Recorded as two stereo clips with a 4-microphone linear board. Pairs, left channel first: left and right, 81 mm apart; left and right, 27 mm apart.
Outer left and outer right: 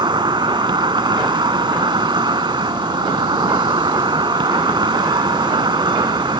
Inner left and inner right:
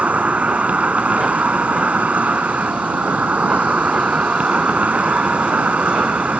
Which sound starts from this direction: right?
An insect, at 0.0 s.